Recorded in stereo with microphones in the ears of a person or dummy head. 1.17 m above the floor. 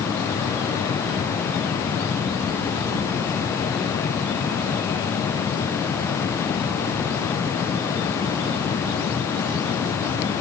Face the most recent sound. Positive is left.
No sound to turn to.